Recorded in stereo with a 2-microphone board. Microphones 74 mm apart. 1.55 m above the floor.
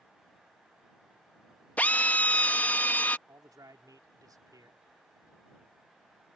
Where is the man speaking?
60° right (ahead or behind).